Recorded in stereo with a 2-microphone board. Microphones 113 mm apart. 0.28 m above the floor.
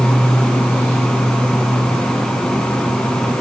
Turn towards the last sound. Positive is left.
No sound to turn to.